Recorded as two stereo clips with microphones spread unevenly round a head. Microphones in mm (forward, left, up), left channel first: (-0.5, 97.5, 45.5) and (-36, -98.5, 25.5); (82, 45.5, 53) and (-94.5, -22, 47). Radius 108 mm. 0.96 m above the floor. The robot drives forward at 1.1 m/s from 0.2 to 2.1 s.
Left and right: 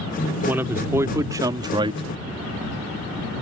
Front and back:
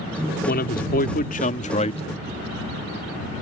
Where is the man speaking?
20° right; by 2.0 s 40° right.